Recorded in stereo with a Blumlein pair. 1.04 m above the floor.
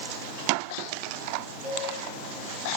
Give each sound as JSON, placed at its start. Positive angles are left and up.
{"t": 1.6, "sound": "a cowbell", "azimuth_deg": 0, "distance_m": 7.0}